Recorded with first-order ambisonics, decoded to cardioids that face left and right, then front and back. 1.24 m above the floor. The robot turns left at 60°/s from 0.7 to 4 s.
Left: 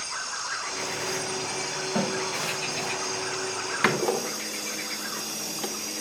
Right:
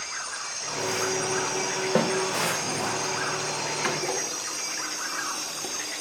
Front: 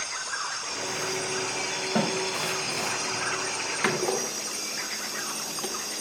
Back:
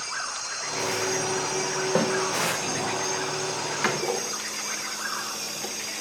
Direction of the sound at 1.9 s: 135° right.